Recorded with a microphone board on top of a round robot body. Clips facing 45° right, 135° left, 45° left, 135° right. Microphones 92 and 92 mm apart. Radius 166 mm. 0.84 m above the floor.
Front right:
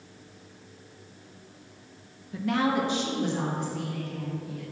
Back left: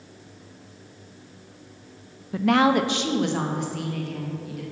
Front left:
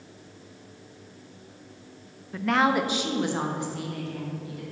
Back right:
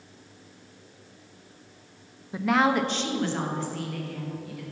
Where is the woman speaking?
150° left, 0.6 m; by 4.6 s 110° left, 2.5 m.